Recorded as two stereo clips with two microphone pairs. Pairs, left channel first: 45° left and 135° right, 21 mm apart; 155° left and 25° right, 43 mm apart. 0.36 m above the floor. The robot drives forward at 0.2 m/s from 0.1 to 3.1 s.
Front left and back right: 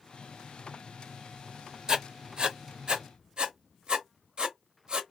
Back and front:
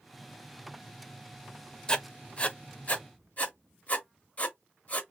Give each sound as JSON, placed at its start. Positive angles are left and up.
{"t": 1.9, "sound": "writing", "azimuth_deg": -155, "distance_m": 0.5}